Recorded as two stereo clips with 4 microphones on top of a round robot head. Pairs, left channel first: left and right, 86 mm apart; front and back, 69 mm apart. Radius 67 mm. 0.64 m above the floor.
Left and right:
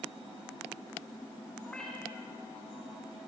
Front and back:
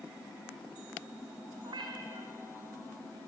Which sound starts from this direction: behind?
A cat meowing, at 1.6 s.